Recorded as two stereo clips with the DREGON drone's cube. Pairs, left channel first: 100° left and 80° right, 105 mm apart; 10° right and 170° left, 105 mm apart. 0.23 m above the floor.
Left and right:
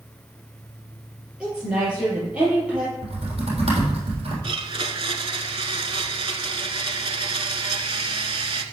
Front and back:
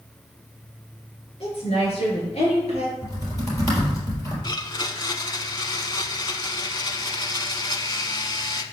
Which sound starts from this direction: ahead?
A woman speaking, at 1.4 s.